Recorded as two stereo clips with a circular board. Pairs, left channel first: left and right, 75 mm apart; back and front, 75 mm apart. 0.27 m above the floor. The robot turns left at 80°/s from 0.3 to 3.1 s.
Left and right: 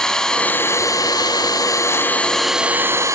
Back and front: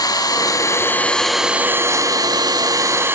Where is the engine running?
170° left, 0.8 m; by 3.1 s 50° right, 0.8 m.